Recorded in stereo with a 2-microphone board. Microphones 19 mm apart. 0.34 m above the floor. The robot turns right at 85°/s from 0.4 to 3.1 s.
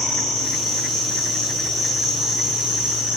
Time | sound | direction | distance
0.0 | an insect | 45° left | 0.8 m